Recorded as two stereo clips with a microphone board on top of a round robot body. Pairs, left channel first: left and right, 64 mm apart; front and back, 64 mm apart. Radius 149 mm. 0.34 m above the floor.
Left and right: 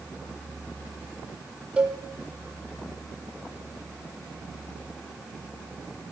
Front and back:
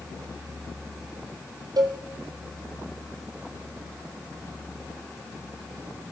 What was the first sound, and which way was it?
A cowbell, 165° right.